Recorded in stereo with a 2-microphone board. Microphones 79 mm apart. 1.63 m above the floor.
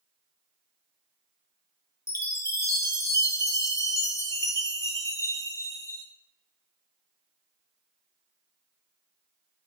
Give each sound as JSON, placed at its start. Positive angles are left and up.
{"t": 2.1, "sound": "a chime", "side_deg": 40, "distance_m": 1.6}